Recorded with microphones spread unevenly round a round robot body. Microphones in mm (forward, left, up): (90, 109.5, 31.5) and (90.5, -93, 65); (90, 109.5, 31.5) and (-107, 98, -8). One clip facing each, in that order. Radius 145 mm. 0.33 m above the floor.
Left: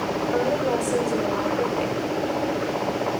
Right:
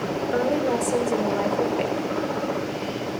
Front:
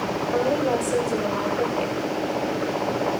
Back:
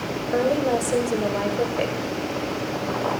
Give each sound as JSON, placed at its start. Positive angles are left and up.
{"t": 0.3, "sound": "a woman speaking", "azimuth_deg": -150, "distance_m": 1.6}